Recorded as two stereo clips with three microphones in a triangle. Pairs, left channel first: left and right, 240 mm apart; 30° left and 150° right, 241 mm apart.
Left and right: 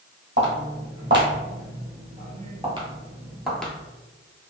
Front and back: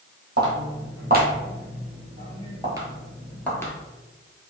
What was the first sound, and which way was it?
Footsteps, 115° right.